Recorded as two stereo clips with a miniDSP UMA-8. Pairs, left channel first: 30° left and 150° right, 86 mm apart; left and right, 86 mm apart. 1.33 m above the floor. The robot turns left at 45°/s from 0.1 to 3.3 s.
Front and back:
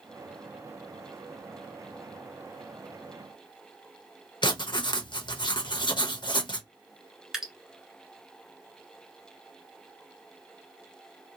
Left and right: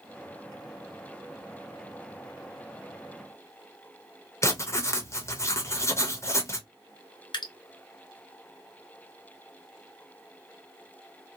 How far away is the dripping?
About 0.7 m.